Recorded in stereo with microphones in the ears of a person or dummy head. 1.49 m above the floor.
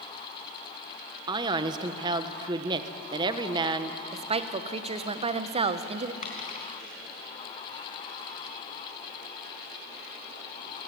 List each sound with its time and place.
1.3 s a man speaking: 25° right (ahead or behind), 1.3 m
4.1 s a woman speaking: 25° right (ahead or behind), 1.1 m
6.2 s a dropped coin: 45° left (ahead or behind), 4.5 m